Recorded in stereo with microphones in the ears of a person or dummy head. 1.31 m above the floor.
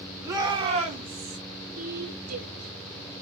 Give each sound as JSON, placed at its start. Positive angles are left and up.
{"t": 0.2, "sound": "a shout", "side_deg": -15, "distance_m": 3.0}
{"t": 1.8, "sound": "a woman speaking", "side_deg": -45, "distance_m": 2.5}